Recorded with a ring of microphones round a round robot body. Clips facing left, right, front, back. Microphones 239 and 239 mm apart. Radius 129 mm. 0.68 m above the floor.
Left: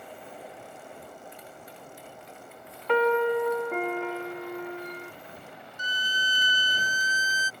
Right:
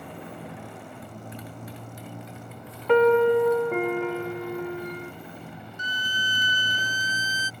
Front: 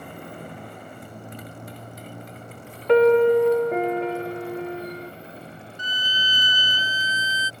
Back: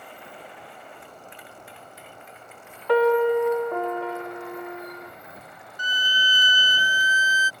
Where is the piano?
70° right.